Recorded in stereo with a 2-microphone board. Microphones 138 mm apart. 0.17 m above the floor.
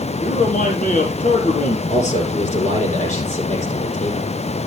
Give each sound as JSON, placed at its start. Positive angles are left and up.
{"t": 0.2, "sound": "a man speaking", "side_deg": 75, "distance_m": 4.5}
{"t": 1.9, "sound": "a man speaking", "side_deg": 60, "distance_m": 5.5}